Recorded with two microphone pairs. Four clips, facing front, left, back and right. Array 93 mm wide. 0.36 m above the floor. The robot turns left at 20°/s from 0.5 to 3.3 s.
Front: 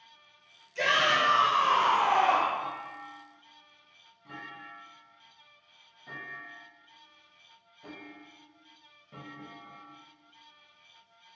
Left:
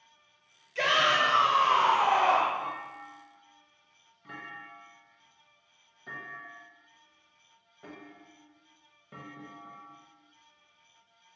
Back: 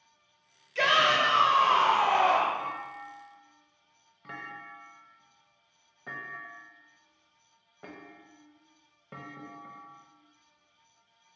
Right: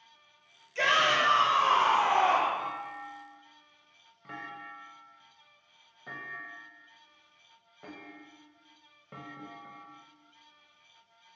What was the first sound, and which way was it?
A shout, 175° left.